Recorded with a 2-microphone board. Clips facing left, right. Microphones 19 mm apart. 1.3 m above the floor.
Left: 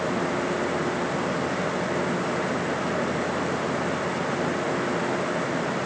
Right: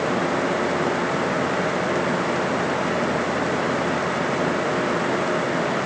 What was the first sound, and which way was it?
Only background noise.